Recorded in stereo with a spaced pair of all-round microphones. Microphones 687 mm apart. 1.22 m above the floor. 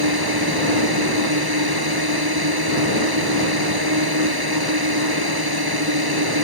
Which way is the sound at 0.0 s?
30° right (ahead or behind).